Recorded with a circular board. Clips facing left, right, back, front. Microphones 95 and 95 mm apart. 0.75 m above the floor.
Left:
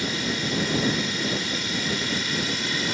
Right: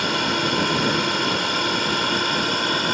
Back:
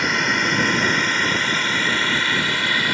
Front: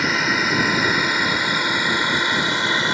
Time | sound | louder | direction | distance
0.0 | a drone | right 6 dB, even | 90° right | ?